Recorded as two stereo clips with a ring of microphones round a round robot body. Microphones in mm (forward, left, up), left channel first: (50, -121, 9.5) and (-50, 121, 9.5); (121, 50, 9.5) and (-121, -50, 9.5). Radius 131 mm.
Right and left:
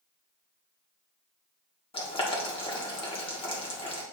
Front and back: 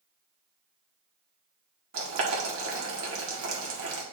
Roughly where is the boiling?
Behind right.